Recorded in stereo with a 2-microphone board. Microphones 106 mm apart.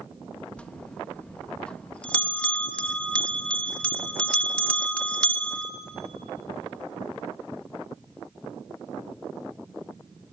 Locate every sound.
0.6 s a bell: 10° left (ahead or behind), 0.9 m